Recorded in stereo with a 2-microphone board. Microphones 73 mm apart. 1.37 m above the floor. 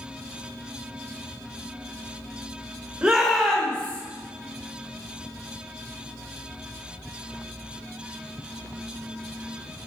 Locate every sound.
3.0 s a shout: 10° right (ahead or behind), 1.3 m; by 4.0 s 20° left (ahead or behind), 1.7 m